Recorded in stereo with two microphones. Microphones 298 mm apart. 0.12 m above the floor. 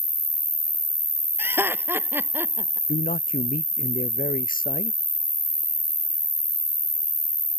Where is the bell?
No bell in this recording.